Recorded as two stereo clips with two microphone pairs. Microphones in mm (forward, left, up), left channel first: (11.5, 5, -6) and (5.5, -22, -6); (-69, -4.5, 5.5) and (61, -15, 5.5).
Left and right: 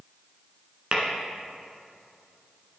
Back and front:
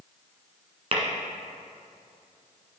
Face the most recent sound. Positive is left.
turn(degrees=-45)